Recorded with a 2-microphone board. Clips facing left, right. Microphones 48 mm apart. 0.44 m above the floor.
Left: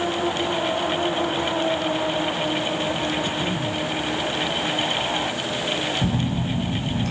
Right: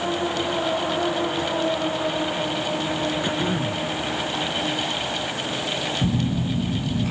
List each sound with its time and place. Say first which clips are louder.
3.2 s throat clearing: right 1 dB; 25° right (ahead or behind)
6.0 s a phone buzzing: even; 10° right (ahead or behind)